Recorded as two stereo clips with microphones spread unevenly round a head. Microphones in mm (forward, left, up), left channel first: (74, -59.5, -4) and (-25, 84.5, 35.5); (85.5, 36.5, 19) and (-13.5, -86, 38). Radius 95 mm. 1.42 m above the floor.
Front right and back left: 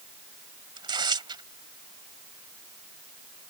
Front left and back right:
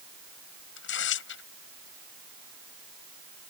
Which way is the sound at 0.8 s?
60° left.